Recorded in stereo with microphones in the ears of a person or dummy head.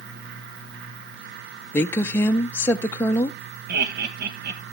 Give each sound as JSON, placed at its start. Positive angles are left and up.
{"t": 1.7, "sound": "a woman speaking", "side_deg": 15, "distance_m": 0.6}
{"t": 3.7, "sound": "laughter", "side_deg": -60, "distance_m": 1.5}